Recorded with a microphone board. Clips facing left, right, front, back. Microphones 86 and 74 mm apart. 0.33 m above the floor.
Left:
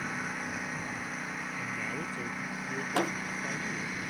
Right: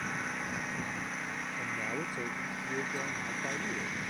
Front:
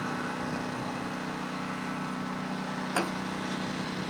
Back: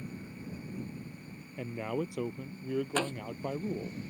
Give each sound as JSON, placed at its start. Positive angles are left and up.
{"t": 0.0, "sound": "a lawn mower", "azimuth_deg": 0}
{"t": 1.6, "sound": "a man speaking", "azimuth_deg": -165}
{"t": 3.0, "sound": "a door slam", "azimuth_deg": 80}